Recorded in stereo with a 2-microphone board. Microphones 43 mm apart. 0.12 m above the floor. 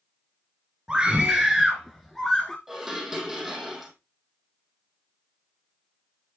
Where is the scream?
20° right (ahead or behind), 1.7 m; by 2.6 s 10° left (ahead or behind), 1.6 m.